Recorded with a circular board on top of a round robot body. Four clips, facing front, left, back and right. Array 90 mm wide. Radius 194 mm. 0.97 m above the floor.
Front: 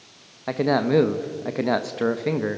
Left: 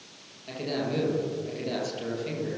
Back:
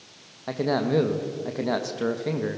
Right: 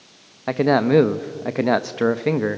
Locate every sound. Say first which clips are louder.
0.5 s a man speaking: right 14 dB, front 4 dB; 75° right, 1.2 m